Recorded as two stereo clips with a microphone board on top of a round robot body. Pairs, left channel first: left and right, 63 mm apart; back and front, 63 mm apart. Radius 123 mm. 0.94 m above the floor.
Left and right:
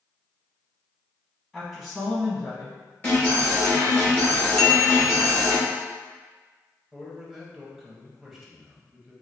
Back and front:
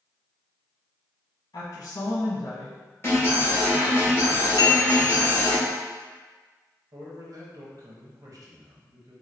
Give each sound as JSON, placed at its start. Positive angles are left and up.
{"t": 1.5, "sound": "a woman speaking", "azimuth_deg": 165, "distance_m": 1.1}
{"t": 3.0, "sound": "an alarm", "azimuth_deg": 140, "distance_m": 1.7}
{"t": 4.6, "sound": "a bell", "azimuth_deg": 175, "distance_m": 0.6}
{"t": 6.9, "sound": "a man speaking", "azimuth_deg": 0, "distance_m": 1.1}